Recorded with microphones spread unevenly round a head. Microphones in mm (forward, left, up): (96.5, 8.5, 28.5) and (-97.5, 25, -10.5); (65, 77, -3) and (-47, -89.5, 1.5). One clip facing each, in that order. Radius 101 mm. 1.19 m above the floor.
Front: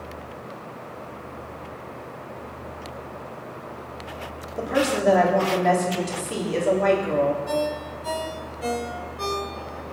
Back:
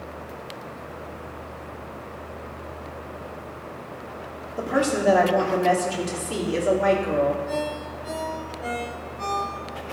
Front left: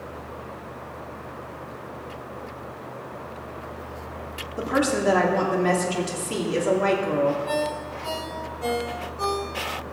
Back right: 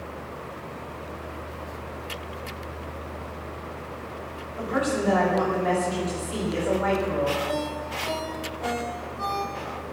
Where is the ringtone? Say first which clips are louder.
Front 3 dB, front left 2 dB; 10° left, 3.5 m.